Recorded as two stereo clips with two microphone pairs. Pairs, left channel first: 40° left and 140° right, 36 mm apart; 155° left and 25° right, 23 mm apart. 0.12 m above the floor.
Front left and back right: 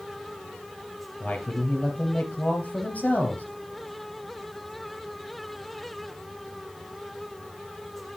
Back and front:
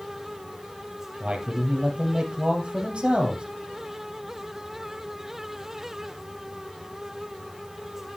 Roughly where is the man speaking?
Ahead.